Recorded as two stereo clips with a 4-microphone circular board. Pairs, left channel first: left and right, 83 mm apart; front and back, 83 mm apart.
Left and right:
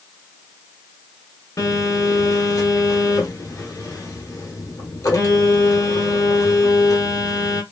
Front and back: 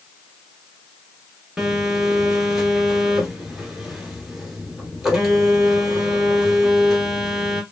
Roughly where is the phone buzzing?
Left.